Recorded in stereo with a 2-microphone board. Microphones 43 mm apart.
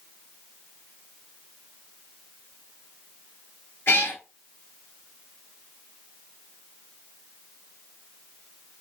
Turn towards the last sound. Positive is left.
turn(degrees=65)  # may be behind; listen again after turning